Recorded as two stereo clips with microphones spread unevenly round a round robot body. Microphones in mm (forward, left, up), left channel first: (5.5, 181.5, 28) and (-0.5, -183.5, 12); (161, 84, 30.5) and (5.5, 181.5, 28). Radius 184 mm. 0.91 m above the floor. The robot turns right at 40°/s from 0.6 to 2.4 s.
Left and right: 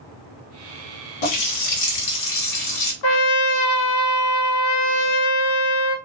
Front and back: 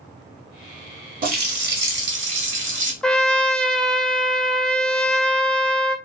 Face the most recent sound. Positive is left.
turn(degrees=55)